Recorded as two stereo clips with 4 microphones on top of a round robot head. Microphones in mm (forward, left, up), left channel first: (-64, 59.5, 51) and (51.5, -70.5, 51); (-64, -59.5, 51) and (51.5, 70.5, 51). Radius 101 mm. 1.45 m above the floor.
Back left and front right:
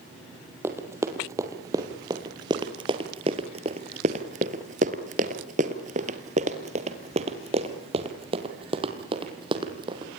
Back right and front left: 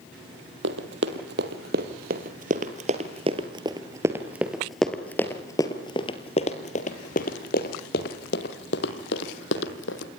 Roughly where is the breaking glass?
No breaking glass in this recording.